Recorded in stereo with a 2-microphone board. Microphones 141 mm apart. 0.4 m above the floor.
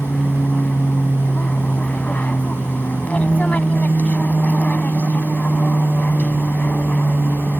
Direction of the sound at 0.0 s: 10° left (ahead or behind).